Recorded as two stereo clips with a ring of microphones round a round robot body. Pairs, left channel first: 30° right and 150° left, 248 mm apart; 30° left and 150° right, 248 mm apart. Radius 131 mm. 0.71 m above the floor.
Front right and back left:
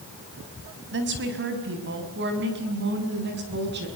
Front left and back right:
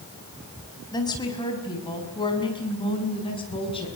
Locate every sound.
0.9 s a woman speaking: 105° left, 5 m; by 3.9 s 100° left, 7 m